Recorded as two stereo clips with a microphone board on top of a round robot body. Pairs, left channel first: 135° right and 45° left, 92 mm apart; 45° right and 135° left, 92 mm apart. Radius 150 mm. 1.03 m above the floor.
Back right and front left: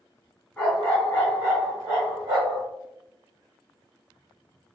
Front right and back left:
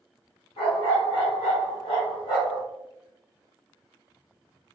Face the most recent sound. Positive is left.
turn(degrees=20)